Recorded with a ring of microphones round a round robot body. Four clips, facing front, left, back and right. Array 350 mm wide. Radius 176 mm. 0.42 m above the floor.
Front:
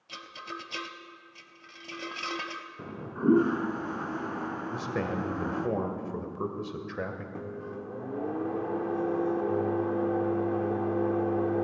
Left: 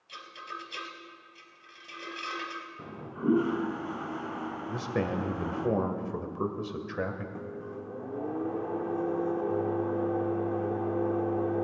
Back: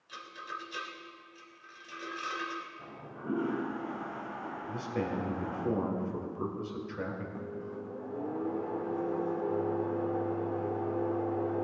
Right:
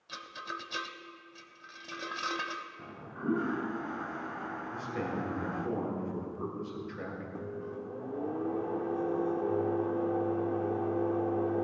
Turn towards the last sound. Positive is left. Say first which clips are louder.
# even, front 2 dB
turn(degrees=10)